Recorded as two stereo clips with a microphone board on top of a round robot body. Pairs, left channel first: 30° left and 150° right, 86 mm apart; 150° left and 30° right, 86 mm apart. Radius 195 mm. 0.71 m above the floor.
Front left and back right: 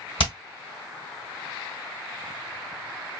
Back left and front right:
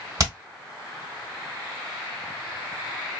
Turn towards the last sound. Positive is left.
turn(degrees=20)